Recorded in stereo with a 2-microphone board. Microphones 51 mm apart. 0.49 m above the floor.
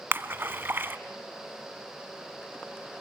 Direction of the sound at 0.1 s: 45° right (ahead or behind).